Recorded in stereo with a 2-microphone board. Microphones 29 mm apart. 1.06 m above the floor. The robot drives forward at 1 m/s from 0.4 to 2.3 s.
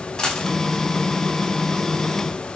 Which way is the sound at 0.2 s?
25° left (ahead or behind).